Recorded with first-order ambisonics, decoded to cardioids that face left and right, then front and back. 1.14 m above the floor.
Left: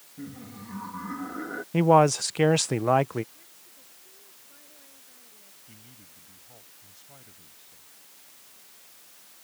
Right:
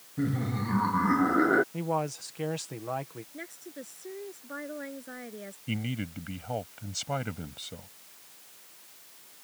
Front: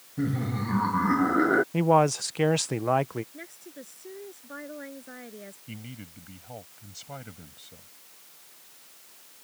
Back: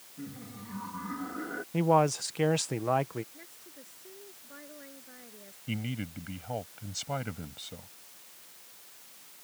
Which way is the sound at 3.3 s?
60° right.